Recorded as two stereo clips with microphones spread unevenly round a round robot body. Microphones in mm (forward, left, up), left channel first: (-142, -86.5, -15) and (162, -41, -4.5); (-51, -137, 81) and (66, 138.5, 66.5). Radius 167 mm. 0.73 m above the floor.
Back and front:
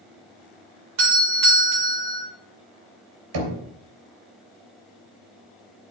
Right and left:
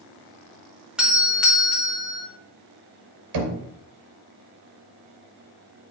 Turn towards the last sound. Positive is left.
turn(degrees=45)